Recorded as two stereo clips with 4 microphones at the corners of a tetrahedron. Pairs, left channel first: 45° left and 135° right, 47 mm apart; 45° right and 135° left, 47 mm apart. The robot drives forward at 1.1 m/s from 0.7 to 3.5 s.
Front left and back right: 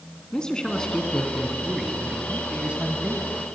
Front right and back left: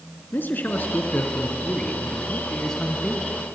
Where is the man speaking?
25° right, 2.5 m; by 3.3 s 140° right, 2 m.